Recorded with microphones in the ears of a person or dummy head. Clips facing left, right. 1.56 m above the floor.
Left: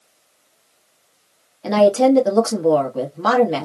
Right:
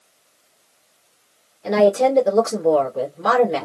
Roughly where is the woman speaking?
Left.